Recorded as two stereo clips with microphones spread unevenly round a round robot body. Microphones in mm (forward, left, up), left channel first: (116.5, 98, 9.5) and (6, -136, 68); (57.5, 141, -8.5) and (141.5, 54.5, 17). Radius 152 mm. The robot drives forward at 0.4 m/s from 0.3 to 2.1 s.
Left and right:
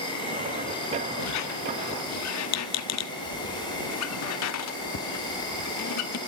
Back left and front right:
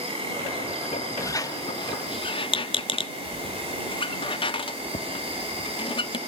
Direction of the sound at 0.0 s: 5° right.